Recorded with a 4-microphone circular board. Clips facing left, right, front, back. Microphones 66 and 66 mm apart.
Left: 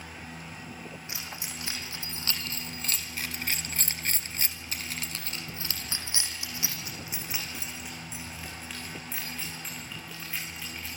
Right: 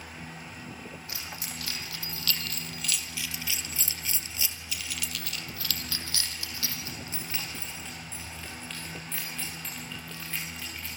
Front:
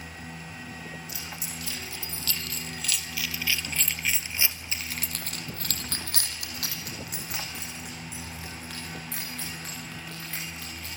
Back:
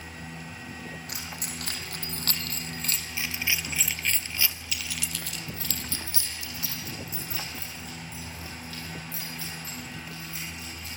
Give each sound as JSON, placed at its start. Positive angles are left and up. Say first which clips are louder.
{"t": 1.1, "sound": "keys jangling", "louder": "even, back 1 dB", "azimuth_deg": 160, "distance_m": 4.5}